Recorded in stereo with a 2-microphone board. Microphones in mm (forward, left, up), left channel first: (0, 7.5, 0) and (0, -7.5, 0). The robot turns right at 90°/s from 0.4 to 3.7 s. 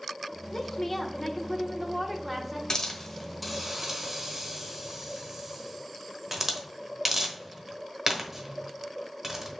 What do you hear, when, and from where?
0.5 s a woman speaking: 20° left (ahead or behind), 0.8 m; by 2.6 s 20° right (ahead or behind), 0.8 m
2.7 s a hiss: 55° left (ahead or behind), 1.0 m; by 9.6 s 20° right (ahead or behind), 1.0 m